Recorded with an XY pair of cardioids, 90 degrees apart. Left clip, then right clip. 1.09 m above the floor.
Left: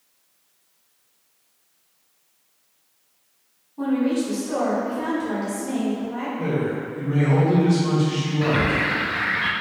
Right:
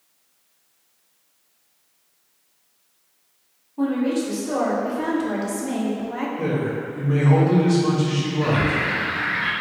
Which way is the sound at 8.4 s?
30° left.